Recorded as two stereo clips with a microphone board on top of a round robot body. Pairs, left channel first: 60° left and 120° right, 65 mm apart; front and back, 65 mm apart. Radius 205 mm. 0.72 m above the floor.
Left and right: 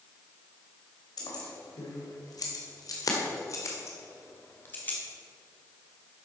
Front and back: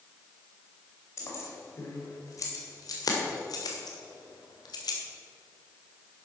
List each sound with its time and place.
1.2 s keys jangling: 45° left, 2.5 m; by 5.0 s 5° right, 1.7 m